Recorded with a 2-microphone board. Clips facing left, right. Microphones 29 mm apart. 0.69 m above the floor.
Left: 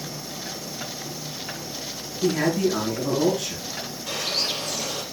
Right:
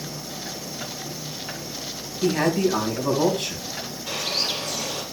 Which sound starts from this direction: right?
A man speaking, at 2.2 s.